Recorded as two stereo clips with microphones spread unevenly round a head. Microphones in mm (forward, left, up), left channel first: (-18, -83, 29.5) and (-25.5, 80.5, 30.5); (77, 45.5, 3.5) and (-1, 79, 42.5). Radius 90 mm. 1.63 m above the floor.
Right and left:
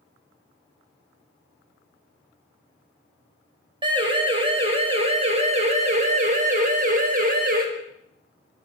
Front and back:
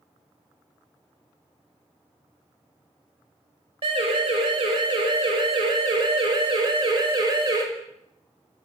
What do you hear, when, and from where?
3.8 s a siren: 155° left, 6 m; by 7.6 s 125° left, 6 m